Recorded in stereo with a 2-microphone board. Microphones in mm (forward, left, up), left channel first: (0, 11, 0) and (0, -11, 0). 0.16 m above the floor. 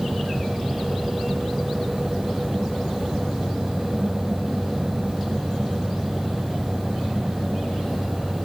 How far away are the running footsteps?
No running footsteps in this recording.